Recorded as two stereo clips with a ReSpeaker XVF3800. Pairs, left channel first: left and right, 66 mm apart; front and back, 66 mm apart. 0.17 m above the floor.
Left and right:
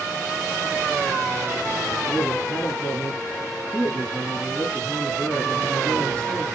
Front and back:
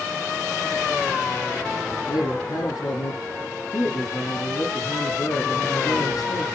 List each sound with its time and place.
2.1 s a man speaking: 20° left, 6.5 m